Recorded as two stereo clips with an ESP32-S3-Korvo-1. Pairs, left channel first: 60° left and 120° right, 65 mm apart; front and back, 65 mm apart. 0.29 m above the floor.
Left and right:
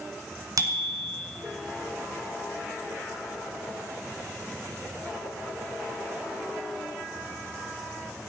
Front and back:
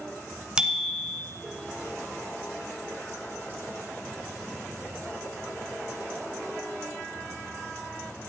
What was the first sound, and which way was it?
A bicycle bell, 105° right.